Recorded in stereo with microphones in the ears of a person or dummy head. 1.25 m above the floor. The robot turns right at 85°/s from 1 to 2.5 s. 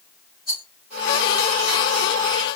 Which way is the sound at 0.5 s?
20° left (ahead or behind).